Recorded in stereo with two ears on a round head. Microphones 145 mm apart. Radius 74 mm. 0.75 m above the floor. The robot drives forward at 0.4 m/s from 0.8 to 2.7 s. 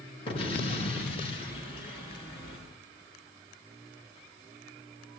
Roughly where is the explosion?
Left.